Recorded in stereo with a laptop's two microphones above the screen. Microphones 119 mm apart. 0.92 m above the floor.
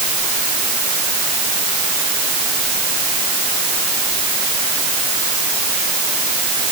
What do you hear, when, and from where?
Only background noise.